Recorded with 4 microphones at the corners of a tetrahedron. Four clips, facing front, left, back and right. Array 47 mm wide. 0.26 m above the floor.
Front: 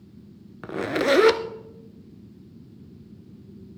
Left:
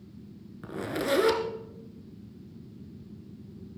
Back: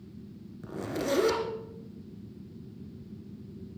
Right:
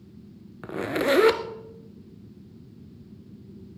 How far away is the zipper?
About 0.8 m.